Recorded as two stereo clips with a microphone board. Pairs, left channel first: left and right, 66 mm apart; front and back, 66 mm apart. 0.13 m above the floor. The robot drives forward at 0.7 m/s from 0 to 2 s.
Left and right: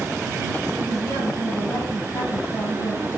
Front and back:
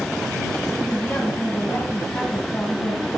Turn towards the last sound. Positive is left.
turn(degrees=65)